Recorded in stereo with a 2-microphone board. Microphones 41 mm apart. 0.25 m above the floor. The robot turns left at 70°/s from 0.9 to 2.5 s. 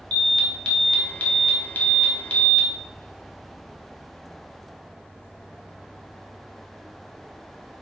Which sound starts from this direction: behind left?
An alarm, at 0.1 s.